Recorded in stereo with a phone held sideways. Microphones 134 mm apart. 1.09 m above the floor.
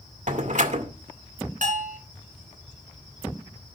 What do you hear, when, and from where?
0.3 s a door slam: 60° right (ahead or behind), 1.9 m
1.6 s a bell: 65° right (ahead or behind), 3 m